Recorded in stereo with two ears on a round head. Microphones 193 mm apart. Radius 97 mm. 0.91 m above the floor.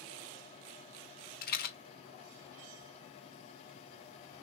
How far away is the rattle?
About 1.0 m.